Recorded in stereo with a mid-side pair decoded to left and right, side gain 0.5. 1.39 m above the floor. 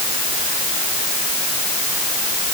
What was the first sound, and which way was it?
Only background noise.